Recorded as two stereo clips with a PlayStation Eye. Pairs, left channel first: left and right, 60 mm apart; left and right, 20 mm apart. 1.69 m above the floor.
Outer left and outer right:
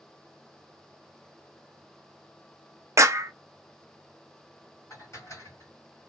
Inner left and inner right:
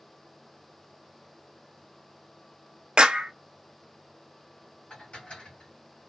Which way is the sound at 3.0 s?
50° right (ahead or behind).